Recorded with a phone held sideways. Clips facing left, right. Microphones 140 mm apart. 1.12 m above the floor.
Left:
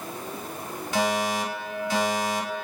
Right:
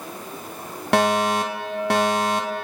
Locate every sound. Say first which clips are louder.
0.9 s a fire alarm: right 6 dB; 70° right (ahead or behind), 5 m